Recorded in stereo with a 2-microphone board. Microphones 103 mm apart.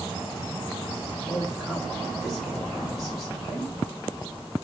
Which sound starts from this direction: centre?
A woman speaking, at 1.3 s.